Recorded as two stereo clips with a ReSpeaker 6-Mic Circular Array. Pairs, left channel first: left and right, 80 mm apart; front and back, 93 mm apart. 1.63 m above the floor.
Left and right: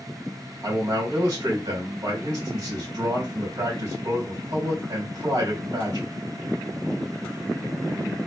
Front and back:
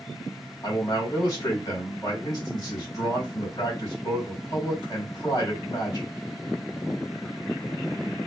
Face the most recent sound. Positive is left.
turn(degrees=-55)